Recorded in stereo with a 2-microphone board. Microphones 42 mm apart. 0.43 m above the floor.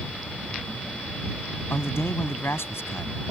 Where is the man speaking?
70° left (ahead or behind).